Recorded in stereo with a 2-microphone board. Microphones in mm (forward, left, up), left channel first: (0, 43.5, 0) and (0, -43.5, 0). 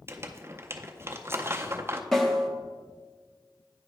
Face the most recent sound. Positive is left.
turn(degrees=0)  # may be behind; listen again after turning